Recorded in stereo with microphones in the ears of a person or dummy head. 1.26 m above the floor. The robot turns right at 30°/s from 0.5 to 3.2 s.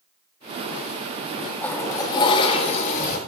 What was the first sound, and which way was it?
A toilet flushing, 5° left.